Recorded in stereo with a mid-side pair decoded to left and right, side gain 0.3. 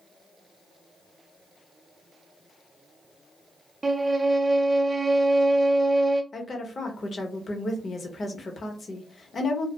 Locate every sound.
3.8 s a violin: 25° right, 0.6 m
6.3 s a woman speaking: 55° left, 1.0 m